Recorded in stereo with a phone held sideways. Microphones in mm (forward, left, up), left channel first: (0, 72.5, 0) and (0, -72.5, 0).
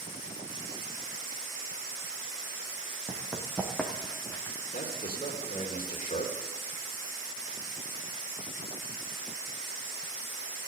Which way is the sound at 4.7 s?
70° left (ahead or behind).